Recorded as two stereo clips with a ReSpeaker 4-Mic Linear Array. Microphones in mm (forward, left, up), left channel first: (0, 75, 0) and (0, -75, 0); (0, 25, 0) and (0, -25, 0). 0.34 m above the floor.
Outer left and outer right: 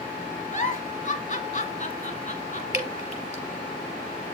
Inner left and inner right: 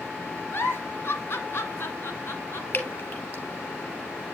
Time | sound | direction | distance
0.5 | a giggle | 55° left (ahead or behind) | 1.1 m
2.7 | dripping | 50° left (ahead or behind) | 2.5 m